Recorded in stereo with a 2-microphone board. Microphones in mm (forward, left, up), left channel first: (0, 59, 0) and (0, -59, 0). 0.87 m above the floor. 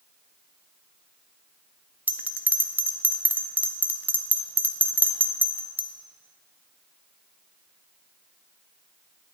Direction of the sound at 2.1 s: 15° right (ahead or behind).